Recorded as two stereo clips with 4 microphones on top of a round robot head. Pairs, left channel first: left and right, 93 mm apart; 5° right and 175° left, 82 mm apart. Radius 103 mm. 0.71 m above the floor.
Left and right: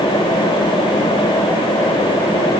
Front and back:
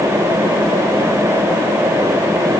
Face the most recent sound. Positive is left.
No sound to turn to.